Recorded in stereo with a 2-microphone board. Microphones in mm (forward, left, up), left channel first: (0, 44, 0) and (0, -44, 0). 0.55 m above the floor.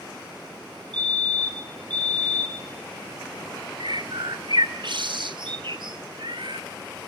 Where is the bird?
60° right (ahead or behind), 1.5 m.